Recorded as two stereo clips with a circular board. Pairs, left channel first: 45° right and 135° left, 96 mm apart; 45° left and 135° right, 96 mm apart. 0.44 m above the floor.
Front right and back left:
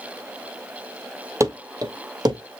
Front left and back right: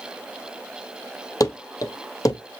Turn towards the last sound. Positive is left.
turn(degrees=95)